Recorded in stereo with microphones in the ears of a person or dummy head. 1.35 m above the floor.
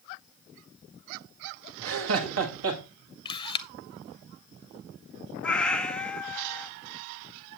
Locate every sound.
1.8 s laughter: 80° right, 1.7 m; by 2.8 s 85° right, 2 m
3.2 s a camera shutter: 20° left (ahead or behind), 0.5 m
5.4 s a cat meowing: 10° left (ahead or behind), 1.2 m